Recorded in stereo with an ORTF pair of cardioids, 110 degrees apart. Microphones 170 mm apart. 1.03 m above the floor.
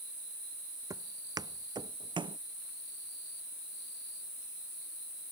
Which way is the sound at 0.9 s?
20° right.